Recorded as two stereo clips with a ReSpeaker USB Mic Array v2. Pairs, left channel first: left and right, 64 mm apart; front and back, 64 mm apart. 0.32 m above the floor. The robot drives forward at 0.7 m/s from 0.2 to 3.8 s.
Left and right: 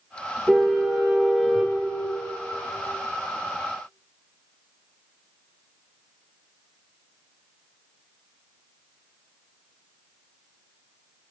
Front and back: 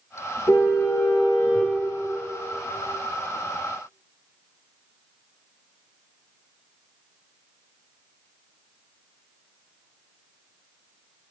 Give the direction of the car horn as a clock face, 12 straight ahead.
12 o'clock.